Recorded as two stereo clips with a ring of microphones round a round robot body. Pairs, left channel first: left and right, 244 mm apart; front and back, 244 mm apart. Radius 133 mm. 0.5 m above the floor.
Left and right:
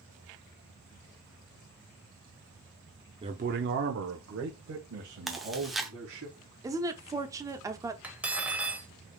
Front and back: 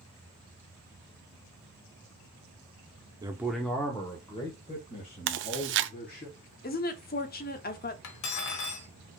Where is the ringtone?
No ringtone in this recording.